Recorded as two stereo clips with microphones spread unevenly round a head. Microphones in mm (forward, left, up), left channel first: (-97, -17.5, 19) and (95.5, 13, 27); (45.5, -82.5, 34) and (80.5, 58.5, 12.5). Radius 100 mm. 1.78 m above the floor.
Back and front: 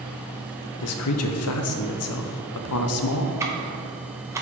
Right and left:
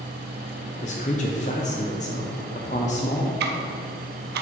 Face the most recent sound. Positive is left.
turn(degrees=85)